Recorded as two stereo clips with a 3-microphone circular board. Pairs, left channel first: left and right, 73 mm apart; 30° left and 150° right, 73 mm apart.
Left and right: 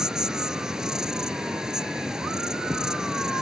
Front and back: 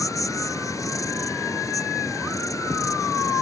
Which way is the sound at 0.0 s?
10° right.